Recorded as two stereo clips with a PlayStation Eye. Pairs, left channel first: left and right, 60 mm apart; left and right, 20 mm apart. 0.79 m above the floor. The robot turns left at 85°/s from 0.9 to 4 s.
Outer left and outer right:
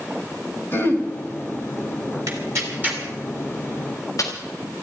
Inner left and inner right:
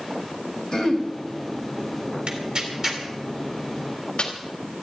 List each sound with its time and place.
0.7 s throat clearing: 40° left (ahead or behind), 2 m; by 1.1 s 25° left (ahead or behind), 2 m
2.3 s tearing paper: 80° right, 3.5 m; by 4.3 s 65° left (ahead or behind), 3.5 m